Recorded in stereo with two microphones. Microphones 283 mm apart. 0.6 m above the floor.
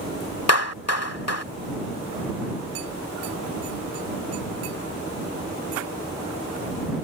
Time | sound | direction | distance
0.5 | a clap | 60° left (ahead or behind) | ?